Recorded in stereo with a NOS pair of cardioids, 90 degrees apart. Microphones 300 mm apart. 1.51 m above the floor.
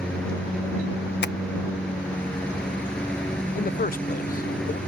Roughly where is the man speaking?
Ahead left.